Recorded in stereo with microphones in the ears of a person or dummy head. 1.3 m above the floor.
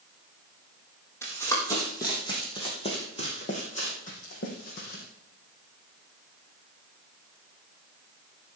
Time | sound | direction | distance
1.2 | running footsteps | 15° left (ahead or behind) | 3 m